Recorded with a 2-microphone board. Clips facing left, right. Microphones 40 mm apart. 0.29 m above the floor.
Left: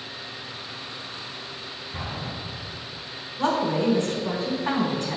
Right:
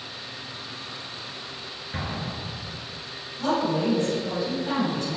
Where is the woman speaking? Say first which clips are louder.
Left 1 dB; 60° left (ahead or behind), 3 m.